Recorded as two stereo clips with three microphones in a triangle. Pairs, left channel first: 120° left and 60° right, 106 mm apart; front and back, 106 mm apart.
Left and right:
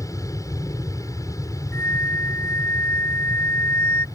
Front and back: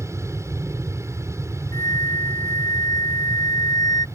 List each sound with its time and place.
0.0 s an aircraft: 145° left
1.7 s a flute: 55° left